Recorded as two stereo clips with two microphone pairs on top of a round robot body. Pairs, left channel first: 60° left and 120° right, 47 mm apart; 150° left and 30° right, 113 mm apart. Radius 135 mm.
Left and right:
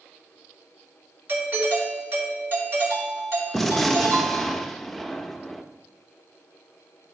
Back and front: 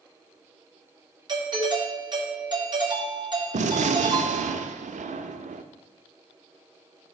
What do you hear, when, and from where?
1.3 s a doorbell: 80° right, 3.5 m
3.5 s a gunshot: 25° right, 0.6 m